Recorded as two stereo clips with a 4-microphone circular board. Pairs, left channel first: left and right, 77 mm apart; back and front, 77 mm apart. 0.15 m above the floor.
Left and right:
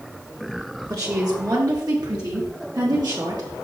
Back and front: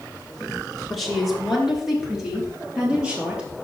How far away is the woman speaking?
About 2.5 m.